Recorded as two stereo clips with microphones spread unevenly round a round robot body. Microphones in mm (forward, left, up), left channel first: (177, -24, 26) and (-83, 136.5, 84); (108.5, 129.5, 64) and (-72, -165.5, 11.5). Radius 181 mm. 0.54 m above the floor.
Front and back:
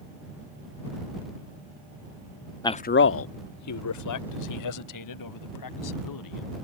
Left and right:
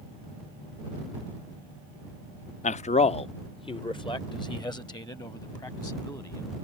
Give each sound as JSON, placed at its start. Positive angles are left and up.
{"t": 2.6, "sound": "a man speaking", "azimuth_deg": -5}